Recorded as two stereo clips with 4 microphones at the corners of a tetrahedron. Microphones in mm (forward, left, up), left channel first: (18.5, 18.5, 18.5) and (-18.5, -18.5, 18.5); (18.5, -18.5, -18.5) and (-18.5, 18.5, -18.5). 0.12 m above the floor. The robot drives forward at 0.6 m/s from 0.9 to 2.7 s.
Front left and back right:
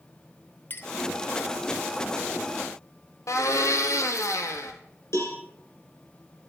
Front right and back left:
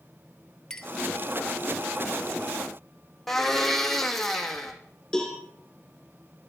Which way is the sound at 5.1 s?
35° left.